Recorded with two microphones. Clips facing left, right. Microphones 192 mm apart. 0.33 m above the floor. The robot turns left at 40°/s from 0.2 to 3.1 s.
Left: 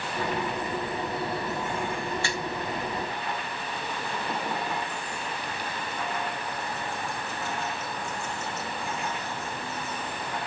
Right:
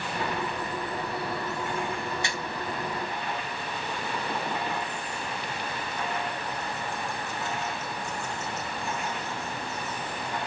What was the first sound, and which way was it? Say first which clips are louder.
A finger snap: left 2 dB; 20° right (ahead or behind).